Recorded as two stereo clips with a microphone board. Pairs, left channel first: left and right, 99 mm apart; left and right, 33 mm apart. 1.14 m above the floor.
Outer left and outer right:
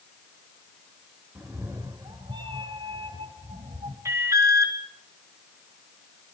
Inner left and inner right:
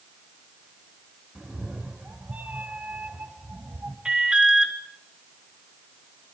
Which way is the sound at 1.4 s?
25° right (ahead or behind).